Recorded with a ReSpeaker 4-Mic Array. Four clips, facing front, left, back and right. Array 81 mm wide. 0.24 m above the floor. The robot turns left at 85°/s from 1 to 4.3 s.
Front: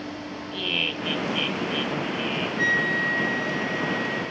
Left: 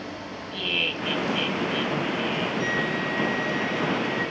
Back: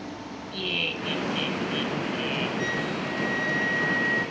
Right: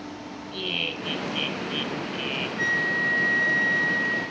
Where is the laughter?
20° left, 1.7 m; by 2.5 s 105° right, 1.7 m.